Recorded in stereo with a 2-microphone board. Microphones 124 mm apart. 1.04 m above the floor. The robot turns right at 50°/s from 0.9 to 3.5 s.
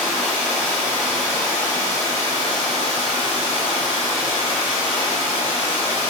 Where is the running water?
20° right, 1.4 m; by 6.1 s 110° left, 1.4 m.